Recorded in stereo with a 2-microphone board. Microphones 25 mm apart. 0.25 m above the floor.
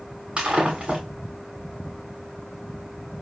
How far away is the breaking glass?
About 6 m.